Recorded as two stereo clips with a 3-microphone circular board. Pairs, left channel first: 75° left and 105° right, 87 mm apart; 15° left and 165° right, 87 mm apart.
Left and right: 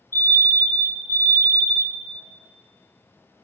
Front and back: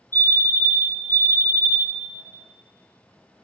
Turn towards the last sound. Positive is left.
turn(degrees=45)